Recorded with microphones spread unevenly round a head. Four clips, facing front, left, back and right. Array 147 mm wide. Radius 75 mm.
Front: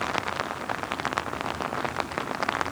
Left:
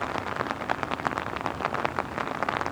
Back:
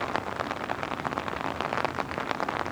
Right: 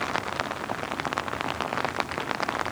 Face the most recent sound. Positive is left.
No sound to turn to.